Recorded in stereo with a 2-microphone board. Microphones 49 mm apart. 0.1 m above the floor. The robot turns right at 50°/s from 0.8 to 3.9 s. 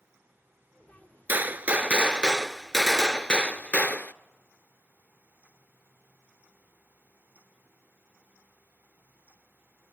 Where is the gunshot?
70° right, 0.5 m; by 4.1 s 60° left, 0.5 m.